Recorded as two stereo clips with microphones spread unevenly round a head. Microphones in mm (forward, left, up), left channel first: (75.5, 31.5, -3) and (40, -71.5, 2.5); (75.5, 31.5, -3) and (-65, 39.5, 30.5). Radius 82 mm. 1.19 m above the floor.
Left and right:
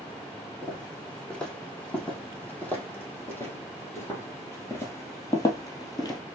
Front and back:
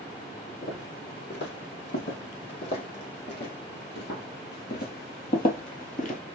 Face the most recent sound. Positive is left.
turn(degrees=25)